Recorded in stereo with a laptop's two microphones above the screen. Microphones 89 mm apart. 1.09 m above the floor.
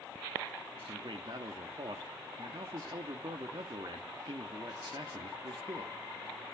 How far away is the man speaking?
About 2.0 m.